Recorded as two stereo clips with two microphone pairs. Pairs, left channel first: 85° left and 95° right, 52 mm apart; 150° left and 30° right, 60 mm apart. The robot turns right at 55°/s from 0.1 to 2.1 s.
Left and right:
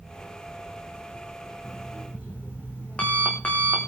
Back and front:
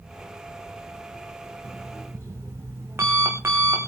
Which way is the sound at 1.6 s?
5° right.